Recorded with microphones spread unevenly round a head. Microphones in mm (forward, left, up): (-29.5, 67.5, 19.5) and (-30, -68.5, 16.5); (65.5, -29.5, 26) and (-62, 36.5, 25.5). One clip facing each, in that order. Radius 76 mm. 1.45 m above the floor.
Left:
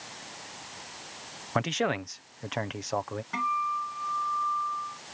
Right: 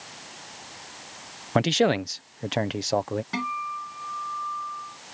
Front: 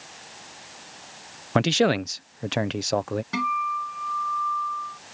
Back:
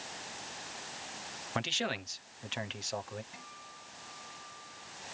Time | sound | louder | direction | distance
1.6 | a man speaking | right 7 dB, front 16 dB | 35° right | ?
3.3 | a guitar | left 1 dB, front 24 dB | 30° right | ?